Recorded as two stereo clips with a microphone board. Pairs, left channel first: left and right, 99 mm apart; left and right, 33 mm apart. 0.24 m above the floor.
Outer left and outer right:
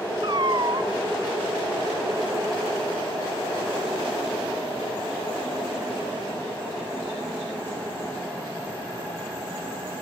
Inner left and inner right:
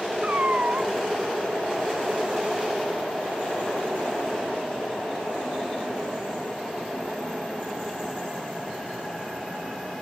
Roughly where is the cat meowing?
Right.